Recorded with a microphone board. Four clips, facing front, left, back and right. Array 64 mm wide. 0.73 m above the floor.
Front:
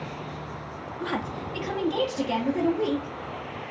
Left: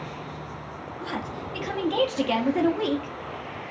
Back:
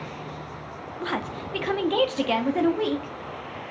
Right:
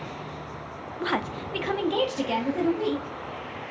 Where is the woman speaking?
110° right, 0.6 m; by 3.1 s 145° left, 1.1 m.